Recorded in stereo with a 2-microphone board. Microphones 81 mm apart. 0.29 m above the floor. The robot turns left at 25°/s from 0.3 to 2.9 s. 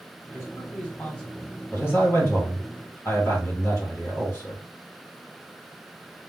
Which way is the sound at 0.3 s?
30° left (ahead or behind).